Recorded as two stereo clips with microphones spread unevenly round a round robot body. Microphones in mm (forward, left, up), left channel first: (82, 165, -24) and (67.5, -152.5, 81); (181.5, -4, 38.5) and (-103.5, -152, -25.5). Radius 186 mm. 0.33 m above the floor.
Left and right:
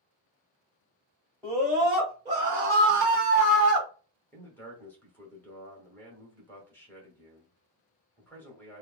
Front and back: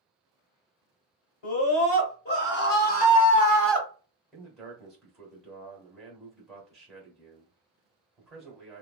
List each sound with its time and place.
1.4 s a scream: straight ahead, 1.7 m; by 3.9 s 80° right, 1.1 m
4.3 s a man speaking: 135° left, 1.1 m